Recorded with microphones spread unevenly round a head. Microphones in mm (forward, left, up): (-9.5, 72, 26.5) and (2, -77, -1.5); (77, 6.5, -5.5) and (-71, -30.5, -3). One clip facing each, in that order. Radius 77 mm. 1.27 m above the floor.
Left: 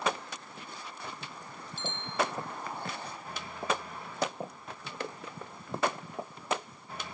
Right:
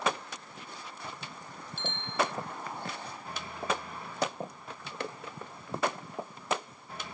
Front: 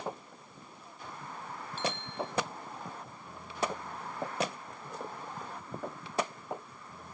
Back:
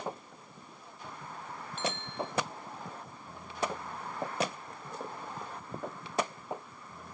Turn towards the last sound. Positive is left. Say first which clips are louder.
# right 1 dB, even
turn(degrees=-45)